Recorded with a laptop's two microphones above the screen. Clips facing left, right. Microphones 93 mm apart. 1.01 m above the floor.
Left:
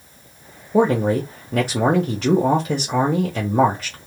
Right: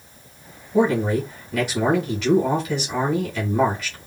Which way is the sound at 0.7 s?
40° left (ahead or behind).